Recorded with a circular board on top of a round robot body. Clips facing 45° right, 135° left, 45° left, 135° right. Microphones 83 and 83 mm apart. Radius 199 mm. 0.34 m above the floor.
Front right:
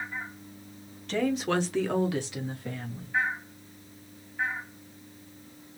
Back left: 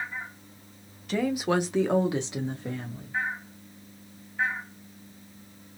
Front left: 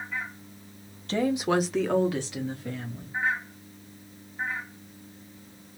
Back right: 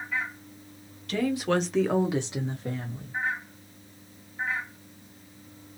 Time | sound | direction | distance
1.1 | a woman speaking | 55° left | 1.2 m